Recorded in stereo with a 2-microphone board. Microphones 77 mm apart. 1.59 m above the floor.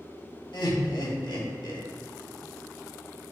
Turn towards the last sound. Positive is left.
turn(degrees=70)  # may be behind; listen again after turning